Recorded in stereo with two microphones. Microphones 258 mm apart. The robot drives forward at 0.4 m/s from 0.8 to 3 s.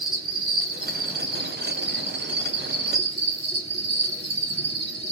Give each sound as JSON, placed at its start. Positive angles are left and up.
{"t": 0.0, "sound": "an insect", "side_deg": -60, "distance_m": 1.3}